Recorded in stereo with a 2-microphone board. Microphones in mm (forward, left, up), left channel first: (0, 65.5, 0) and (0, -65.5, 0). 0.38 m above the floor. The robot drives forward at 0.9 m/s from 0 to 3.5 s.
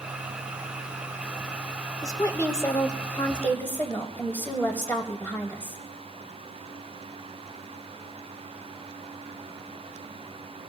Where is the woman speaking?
25° left (ahead or behind), 1.0 m; by 5.8 s 15° left (ahead or behind), 1.7 m.